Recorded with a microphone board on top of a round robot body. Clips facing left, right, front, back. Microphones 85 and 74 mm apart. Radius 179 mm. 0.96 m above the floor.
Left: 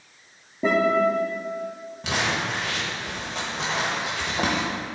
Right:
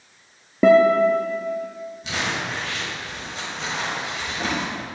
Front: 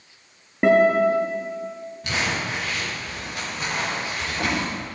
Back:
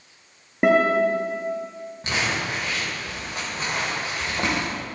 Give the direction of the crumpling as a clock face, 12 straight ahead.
8 o'clock.